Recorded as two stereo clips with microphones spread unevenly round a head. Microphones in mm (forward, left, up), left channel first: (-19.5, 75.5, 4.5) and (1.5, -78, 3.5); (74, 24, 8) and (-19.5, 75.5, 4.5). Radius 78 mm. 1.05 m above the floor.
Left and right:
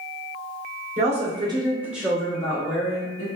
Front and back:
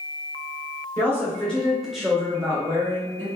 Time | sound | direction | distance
1.0 | a woman speaking | 100° right | 0.9 m